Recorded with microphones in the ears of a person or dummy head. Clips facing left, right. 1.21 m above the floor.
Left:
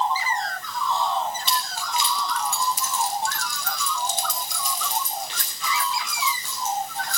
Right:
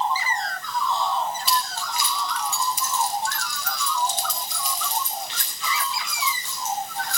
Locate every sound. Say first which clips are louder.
1.5 s keys jangling: right 1 dB; centre (ahead or behind), 1.3 m; by 7.2 s 80° left, 6 m